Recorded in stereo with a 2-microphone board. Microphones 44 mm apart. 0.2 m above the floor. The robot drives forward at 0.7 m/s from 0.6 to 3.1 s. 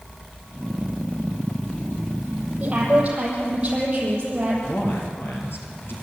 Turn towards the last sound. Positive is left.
turn(degrees=55)  # may be behind; listen again after turning